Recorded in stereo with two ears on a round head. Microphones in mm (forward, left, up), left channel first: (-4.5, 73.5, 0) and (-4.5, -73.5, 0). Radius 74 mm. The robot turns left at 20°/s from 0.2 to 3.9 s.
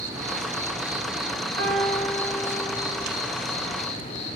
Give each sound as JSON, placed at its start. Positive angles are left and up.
{"t": 0.0, "sound": "an insect", "azimuth_deg": -155, "distance_m": 1.5}
{"t": 1.6, "sound": "a piano", "side_deg": -50, "distance_m": 5.0}